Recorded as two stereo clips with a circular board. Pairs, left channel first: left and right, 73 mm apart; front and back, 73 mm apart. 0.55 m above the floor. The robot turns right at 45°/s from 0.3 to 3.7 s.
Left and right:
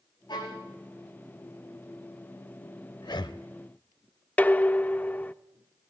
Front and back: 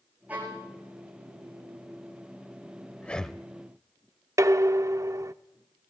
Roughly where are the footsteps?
I don't hear footsteps.